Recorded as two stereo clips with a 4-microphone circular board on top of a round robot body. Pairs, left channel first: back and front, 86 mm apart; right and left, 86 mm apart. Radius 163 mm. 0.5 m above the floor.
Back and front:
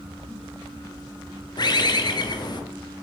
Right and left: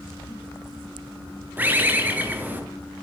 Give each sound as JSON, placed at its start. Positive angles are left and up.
{"t": 1.6, "sound": "a bird", "azimuth_deg": 155, "distance_m": 1.1}